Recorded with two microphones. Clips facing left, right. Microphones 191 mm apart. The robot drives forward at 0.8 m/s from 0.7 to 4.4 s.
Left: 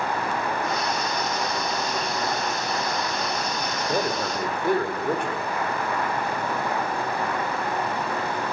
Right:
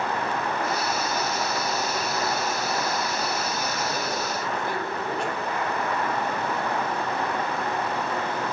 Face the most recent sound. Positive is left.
turn(degrees=55)  # may be behind; listen again after turning